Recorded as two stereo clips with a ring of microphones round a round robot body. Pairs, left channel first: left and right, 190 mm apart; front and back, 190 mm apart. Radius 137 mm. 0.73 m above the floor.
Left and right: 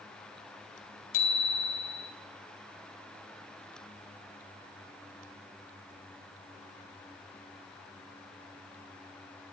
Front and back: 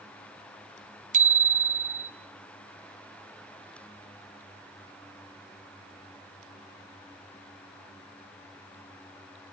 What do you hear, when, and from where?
1.1 s a bicycle bell: 130° left, 2 m